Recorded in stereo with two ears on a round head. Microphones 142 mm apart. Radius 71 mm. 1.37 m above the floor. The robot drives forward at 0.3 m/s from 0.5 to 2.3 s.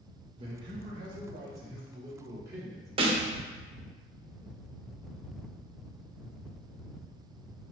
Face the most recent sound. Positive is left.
turn(degrees=-35)  # may be behind; listen again after turning